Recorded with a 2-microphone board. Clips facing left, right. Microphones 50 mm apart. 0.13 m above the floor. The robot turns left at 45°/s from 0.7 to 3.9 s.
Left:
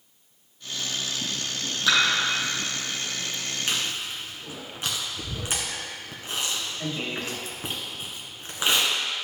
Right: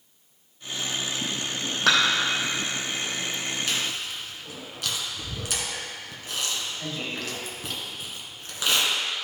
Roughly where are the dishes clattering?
Right.